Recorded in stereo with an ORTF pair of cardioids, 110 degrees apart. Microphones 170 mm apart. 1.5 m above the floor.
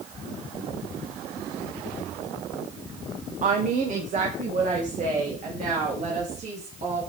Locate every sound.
3.4 s a woman speaking: 45° right, 1.2 m